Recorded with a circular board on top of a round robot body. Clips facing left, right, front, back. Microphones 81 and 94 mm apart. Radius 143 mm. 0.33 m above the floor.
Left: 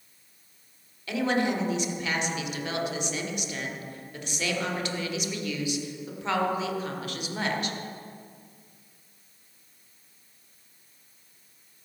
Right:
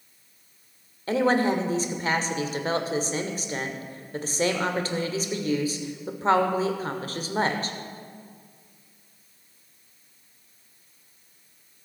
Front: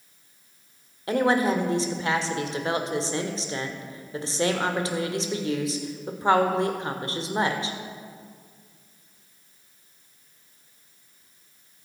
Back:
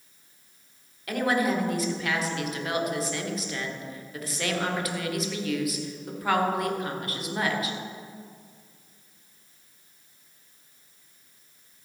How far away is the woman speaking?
About 2.0 m.